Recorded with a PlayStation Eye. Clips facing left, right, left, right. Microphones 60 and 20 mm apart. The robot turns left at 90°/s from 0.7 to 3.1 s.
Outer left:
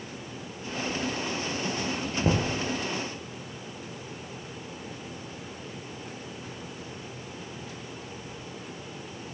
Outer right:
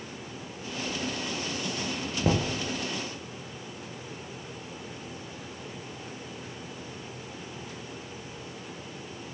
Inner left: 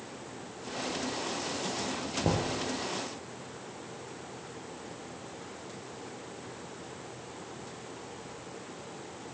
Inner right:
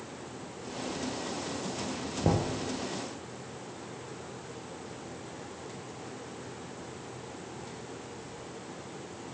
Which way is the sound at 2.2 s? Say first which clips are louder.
Even, inner right 2 dB; centre (ahead or behind).